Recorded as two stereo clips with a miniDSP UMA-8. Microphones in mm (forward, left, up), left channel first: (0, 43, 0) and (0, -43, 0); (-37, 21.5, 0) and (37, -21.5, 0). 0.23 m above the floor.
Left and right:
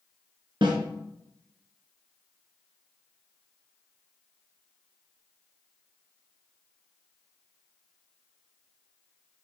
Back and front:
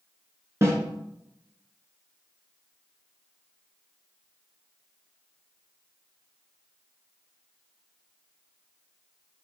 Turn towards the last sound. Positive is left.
turn(degrees=-85)